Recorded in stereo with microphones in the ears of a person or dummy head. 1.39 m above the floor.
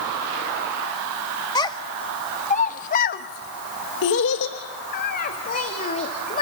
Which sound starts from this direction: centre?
A child speaking, at 1.6 s.